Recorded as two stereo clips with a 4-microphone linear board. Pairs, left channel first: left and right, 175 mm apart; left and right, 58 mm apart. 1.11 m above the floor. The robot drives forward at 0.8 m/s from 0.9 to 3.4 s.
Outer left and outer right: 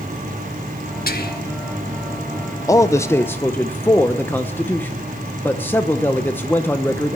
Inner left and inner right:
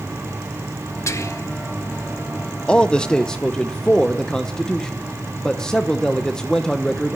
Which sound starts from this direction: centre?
A man speaking, at 2.7 s.